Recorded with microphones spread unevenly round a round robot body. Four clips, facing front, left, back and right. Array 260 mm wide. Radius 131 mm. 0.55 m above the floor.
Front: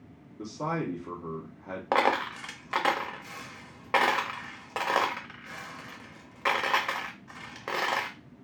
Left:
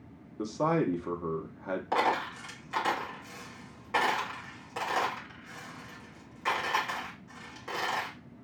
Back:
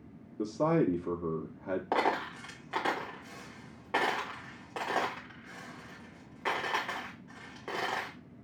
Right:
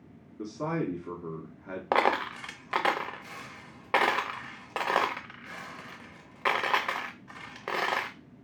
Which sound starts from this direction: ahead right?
A dropped coin, at 1.9 s.